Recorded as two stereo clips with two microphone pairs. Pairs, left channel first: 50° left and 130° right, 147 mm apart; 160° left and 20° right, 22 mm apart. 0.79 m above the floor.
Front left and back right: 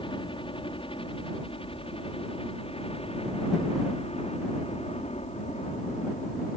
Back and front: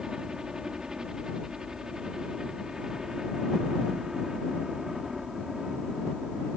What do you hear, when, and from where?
0.0 s a helicopter: 15° left; by 6.6 s 40° left